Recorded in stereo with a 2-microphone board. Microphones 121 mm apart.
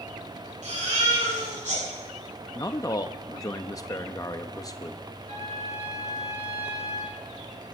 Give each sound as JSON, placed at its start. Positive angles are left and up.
{"t": 0.6, "sound": "a baby crying", "side_deg": -85, "distance_m": 8.5}
{"t": 2.5, "sound": "a man speaking", "side_deg": 30, "distance_m": 0.5}
{"t": 5.3, "sound": "a trumpet", "side_deg": -65, "distance_m": 7.5}